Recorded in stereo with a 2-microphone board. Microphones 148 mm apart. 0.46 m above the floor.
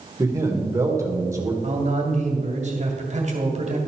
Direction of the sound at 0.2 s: 20° right (ahead or behind).